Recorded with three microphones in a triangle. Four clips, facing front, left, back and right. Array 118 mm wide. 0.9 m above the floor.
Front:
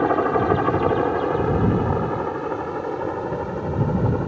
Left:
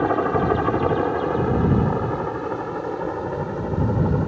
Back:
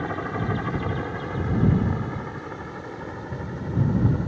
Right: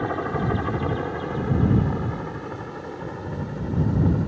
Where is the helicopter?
30° left; by 4.3 s 35° left.